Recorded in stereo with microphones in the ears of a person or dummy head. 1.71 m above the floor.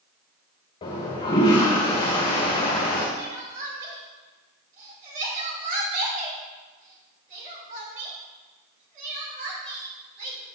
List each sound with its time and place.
0.8 s a toilet flushing: 25° left (ahead or behind), 1.6 m
3.2 s crying: 45° right (ahead or behind), 2.5 m